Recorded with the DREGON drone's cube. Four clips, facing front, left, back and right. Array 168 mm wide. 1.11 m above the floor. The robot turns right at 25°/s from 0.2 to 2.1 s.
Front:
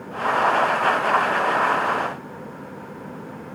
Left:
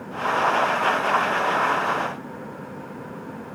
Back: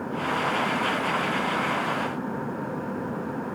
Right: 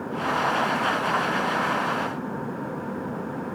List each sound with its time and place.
Only background noise.